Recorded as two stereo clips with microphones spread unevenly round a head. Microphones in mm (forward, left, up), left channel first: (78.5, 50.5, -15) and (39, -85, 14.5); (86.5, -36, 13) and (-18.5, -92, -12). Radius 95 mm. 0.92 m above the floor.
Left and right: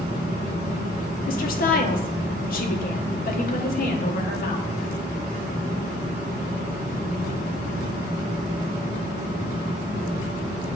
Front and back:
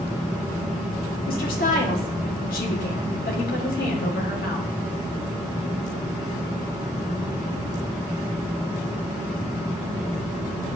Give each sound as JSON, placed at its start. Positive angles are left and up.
{"t": 1.3, "sound": "a woman speaking", "azimuth_deg": 60, "distance_m": 1.2}